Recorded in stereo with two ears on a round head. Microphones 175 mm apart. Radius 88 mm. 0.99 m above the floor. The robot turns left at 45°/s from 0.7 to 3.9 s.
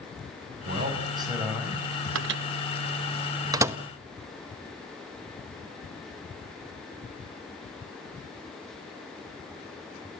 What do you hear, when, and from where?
0.7 s a man speaking: 135° right, 6 m; by 1.8 s 175° left, 6 m
2.1 s a microwave: 70° right (ahead or behind), 0.9 m; by 3.8 s 10° right (ahead or behind), 0.9 m